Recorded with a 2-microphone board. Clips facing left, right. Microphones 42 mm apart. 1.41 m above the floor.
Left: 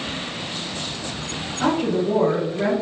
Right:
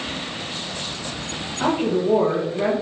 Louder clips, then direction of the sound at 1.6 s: Even; 15° right (ahead or behind).